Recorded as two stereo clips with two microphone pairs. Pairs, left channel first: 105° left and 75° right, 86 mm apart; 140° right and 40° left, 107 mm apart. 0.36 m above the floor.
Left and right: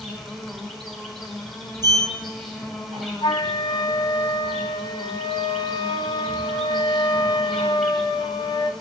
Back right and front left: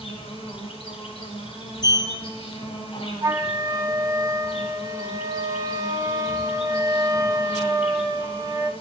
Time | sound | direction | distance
0.0 | an insect | 165° right | 4.5 m
1.8 | a sliding door | 100° right | 1.7 m
3.2 | a flute | 95° left | 0.8 m